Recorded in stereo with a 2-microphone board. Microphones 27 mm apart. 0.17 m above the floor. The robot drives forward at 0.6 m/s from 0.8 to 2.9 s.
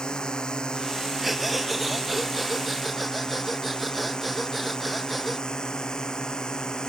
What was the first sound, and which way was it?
A drone, 30° left (ahead or behind).